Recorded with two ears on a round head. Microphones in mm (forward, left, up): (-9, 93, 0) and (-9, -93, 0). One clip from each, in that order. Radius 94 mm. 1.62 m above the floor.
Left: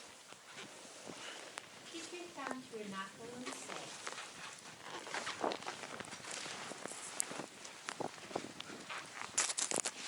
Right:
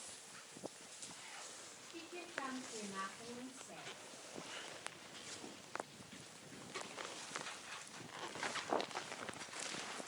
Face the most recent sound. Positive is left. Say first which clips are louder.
# even
turn(degrees=70)  # may be behind; listen again after turning